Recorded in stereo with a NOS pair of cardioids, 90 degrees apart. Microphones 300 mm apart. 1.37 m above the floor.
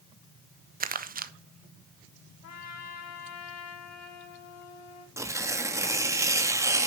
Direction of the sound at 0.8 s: 30° right.